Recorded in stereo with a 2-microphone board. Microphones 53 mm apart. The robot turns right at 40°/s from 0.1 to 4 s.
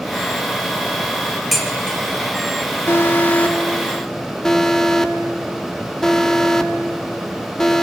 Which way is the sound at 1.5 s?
Centre (ahead or behind).